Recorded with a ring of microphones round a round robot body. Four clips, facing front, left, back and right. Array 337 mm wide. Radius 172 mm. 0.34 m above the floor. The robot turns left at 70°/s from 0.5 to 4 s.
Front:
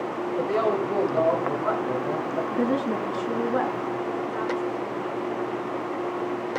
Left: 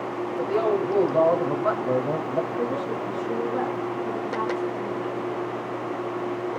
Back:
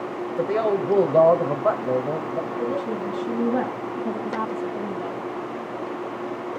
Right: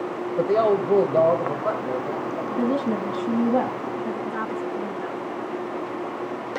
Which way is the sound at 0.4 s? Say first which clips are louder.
Right 4 dB, back 2 dB; 105° right.